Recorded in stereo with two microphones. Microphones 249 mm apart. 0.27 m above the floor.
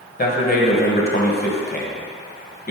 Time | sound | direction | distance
0.2 | a man speaking | 40° left (ahead or behind) | 1.1 m